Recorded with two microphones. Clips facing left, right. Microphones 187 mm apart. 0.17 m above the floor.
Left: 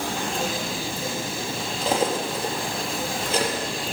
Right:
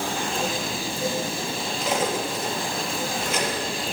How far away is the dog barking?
I don't hear a dog barking.